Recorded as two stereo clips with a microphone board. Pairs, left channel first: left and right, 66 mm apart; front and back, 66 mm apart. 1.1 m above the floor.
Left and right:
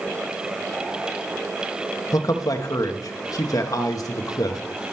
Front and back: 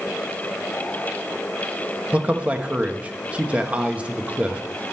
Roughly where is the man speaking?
Left.